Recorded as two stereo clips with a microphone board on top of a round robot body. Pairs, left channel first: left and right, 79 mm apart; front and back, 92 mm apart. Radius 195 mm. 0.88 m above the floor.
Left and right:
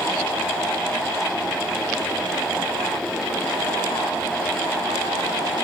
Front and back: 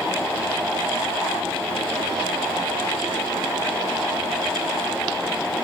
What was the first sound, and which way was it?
Only background noise.